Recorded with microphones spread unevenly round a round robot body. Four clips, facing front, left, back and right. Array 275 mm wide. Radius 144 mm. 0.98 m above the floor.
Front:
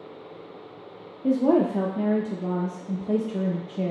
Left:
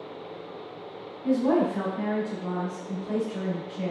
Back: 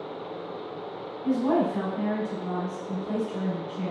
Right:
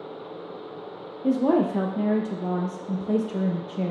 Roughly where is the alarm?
I don't hear an alarm.